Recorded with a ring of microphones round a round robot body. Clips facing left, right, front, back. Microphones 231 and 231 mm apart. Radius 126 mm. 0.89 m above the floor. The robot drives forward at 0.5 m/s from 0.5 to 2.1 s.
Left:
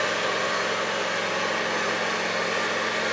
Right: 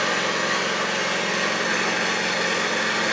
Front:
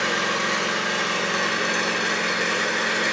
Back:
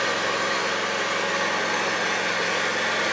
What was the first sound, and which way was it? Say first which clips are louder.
An engine running: right 1 dB, even; 45° right.